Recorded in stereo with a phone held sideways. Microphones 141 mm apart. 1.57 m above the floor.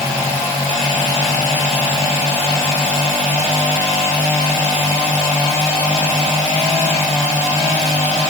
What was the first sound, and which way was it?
Only background noise.